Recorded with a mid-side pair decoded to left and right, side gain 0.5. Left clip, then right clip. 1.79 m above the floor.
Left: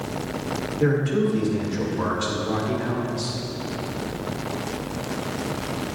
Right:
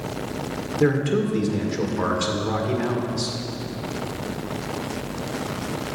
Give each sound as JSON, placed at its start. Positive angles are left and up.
{"t": 0.8, "sound": "a man speaking", "azimuth_deg": -45, "distance_m": 1.8}